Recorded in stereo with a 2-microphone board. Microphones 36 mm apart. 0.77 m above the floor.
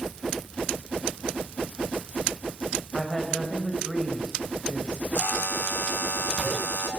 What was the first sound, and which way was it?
A woman speaking, 25° left (ahead or behind).